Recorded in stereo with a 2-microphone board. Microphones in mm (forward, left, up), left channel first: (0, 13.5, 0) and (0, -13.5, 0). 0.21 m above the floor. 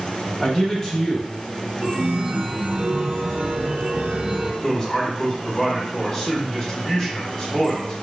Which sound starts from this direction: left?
A man speaking, at 4.6 s.